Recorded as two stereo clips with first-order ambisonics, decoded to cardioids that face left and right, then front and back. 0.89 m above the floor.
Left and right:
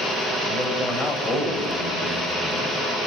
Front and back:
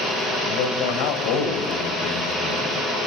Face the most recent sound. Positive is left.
turn(degrees=30)